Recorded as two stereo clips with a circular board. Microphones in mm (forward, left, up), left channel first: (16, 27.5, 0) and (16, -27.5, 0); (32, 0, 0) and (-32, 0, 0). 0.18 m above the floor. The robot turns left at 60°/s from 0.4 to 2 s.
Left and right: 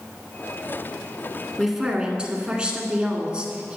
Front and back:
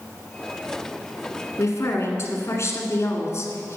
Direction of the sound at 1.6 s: 5° left.